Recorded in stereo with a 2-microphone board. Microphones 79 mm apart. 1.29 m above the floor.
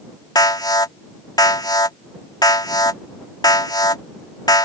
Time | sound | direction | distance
0.3 | an alarm | 60° left (ahead or behind) | ?